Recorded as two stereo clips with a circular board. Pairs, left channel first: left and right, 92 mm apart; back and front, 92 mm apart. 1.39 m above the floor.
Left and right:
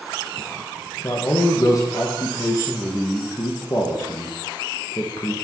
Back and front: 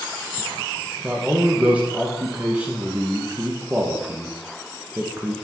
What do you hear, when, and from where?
1.0 s a man speaking: 70° left, 0.5 m